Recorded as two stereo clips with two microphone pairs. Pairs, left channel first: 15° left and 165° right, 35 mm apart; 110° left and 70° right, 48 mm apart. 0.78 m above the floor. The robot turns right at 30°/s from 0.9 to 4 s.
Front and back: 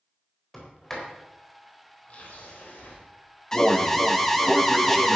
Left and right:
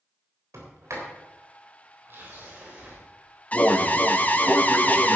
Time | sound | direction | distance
0.5 | a sliding door | 70° right | 3.5 m
3.5 | an alarm | 75° left | 1.1 m